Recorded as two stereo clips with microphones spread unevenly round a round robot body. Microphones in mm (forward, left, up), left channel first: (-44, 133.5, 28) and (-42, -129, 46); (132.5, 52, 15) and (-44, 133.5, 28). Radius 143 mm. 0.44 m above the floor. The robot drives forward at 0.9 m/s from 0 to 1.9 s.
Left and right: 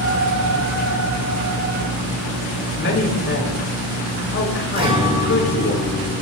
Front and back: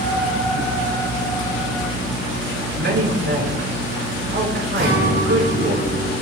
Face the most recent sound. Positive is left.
turn(degrees=-160)